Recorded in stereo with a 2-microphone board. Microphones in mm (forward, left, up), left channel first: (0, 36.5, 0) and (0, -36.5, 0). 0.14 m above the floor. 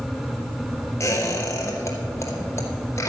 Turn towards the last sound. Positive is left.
turn(degrees=35)  # may be behind; listen again after turning